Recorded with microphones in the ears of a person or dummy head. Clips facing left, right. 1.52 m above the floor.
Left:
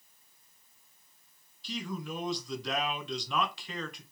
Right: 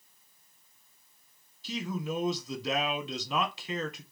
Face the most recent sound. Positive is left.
turn(degrees=-20)  # may be behind; listen again after turning